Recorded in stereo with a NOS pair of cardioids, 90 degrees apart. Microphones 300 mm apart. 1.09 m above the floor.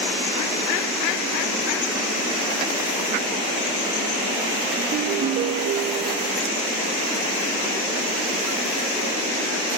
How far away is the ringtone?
About 1.1 m.